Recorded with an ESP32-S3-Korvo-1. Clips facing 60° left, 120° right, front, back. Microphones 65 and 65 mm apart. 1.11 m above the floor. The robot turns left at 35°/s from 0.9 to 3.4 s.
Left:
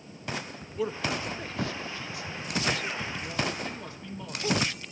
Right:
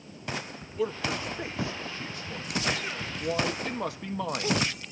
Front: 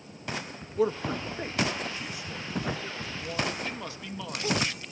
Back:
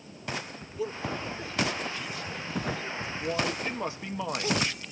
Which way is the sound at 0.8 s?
30° right.